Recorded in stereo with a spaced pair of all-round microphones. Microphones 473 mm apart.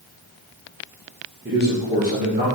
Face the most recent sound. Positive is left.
turn(degrees=-15)  # may be behind; listen again after turning